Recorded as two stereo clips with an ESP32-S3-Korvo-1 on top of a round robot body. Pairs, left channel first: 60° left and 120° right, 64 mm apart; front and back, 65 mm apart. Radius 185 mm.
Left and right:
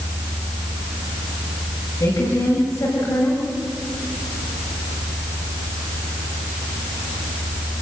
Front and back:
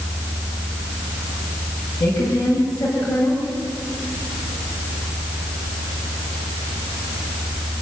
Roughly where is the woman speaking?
Ahead.